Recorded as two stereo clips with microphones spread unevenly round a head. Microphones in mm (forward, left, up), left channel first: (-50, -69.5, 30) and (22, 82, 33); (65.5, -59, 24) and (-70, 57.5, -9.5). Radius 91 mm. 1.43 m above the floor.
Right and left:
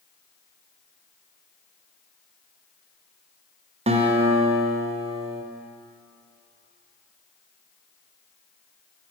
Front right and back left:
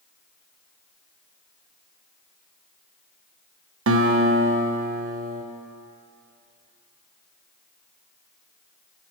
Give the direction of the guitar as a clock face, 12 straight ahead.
8 o'clock.